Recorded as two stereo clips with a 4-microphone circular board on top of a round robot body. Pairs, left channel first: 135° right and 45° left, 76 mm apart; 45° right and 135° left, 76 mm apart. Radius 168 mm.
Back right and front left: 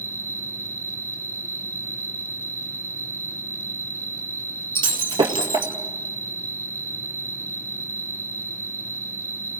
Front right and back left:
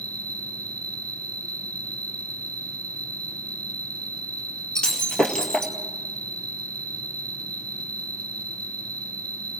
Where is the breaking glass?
35° left, 2.0 m.